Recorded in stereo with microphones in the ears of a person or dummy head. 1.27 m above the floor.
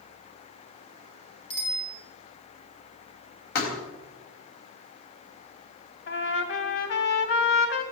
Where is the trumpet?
60° left (ahead or behind), 1.9 m.